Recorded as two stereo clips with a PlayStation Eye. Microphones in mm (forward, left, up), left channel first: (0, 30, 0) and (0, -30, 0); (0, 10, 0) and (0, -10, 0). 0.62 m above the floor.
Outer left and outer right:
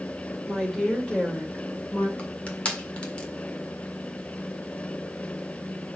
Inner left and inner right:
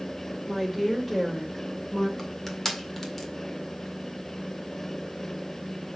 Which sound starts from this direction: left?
Crushing, at 2.2 s.